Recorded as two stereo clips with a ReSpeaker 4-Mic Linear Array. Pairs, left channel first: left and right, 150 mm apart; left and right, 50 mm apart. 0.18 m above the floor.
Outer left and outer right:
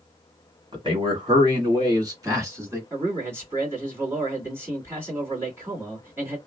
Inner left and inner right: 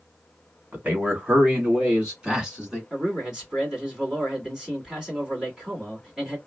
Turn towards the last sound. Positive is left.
turn(degrees=-15)  # may be behind; listen again after turning